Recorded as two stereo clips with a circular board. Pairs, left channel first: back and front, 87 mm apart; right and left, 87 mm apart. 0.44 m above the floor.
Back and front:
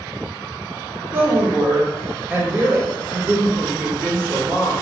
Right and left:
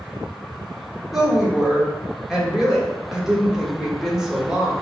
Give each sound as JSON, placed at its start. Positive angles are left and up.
{"t": 1.1, "sound": "a woman speaking", "azimuth_deg": 15, "distance_m": 0.8}